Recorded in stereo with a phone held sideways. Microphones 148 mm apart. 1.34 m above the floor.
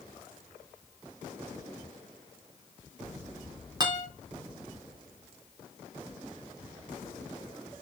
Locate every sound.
3.8 s a guitar: 30° right (ahead or behind), 3.5 m